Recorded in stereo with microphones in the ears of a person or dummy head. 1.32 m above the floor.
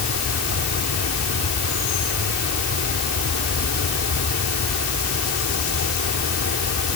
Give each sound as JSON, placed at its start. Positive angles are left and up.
{"t": 0.0, "sound": "an insect", "side_deg": 85}